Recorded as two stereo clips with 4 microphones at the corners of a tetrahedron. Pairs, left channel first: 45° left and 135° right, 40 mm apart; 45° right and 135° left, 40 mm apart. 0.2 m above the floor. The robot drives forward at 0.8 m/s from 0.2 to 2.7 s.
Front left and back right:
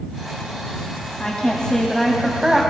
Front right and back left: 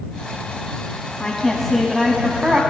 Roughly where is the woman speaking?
Ahead.